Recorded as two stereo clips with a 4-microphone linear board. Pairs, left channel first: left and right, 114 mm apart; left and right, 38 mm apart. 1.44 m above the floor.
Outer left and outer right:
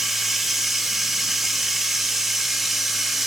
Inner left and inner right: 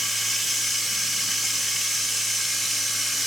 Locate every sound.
0.0 s running water: 5° right (ahead or behind), 1.2 m